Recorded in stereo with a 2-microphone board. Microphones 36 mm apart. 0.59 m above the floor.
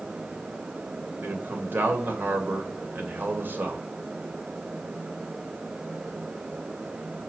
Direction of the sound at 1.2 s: 70° right (ahead or behind).